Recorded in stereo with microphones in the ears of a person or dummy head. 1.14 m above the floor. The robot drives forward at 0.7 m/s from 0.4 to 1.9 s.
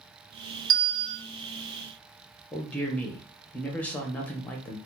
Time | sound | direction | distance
0.7 | a bell | 40° right (ahead or behind) | 2.5 m
2.5 | a man speaking | 5° left (ahead or behind) | 0.6 m